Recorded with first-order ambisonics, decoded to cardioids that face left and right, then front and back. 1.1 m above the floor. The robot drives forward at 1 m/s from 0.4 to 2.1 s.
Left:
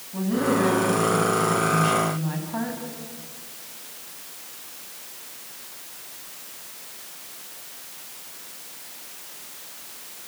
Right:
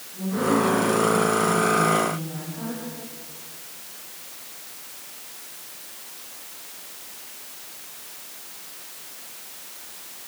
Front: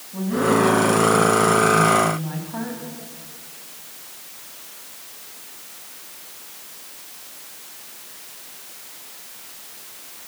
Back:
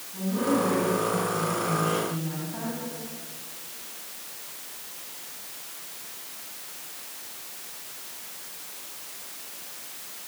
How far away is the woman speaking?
About 9.5 m.